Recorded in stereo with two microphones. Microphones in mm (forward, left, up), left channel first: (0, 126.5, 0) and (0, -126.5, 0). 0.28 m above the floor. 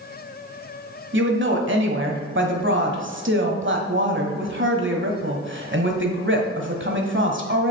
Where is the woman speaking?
50° right (ahead or behind), 1.4 m.